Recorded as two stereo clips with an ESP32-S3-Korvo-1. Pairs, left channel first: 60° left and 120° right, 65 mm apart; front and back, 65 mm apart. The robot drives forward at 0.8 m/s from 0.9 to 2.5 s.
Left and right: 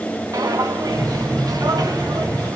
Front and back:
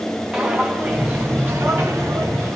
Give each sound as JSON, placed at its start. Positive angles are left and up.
{"t": 0.3, "sound": "footsteps", "azimuth_deg": -100, "distance_m": 1.3}